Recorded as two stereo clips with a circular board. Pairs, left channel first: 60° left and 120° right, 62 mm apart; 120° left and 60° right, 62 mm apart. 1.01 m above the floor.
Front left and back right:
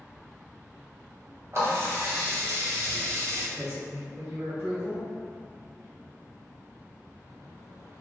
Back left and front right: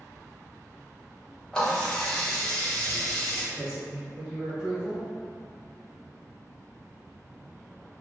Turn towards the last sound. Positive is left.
turn(degrees=-120)